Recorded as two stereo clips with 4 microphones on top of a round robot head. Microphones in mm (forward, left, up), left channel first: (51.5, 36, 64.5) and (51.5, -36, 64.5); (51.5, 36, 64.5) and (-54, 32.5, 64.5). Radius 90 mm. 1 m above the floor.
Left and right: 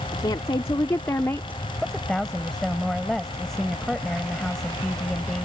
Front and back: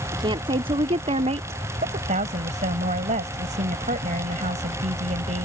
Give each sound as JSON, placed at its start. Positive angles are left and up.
{"t": 0.1, "sound": "a woman speaking", "azimuth_deg": 135}
{"t": 1.8, "sound": "a woman speaking", "azimuth_deg": 175}